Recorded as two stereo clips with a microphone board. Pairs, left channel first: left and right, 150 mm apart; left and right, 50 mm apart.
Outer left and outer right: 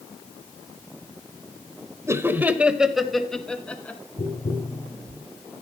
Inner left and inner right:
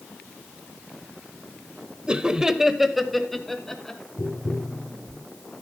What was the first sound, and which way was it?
Laughter, 20° right (ahead or behind).